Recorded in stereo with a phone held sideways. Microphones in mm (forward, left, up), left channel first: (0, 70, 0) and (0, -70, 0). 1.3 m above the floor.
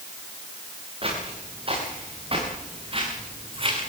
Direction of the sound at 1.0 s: 40° right (ahead or behind).